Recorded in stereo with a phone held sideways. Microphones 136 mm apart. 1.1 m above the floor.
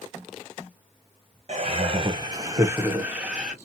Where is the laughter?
45° right (ahead or behind), 0.6 m; by 3.5 s 5° right (ahead or behind), 1.1 m.